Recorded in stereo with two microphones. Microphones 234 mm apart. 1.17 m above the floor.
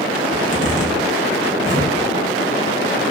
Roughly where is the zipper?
Right.